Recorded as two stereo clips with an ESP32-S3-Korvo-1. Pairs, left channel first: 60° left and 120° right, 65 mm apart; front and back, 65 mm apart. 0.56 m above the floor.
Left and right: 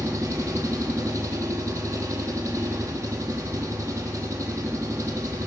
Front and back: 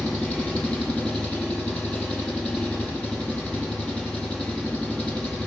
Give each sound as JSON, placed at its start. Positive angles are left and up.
{"t": 0.0, "sound": "an engine running", "azimuth_deg": -70, "distance_m": 7.5}